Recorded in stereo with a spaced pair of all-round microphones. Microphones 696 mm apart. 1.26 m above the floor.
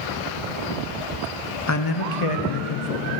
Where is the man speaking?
25° left (ahead or behind), 0.6 m; by 3.1 s 65° left (ahead or behind), 1.1 m.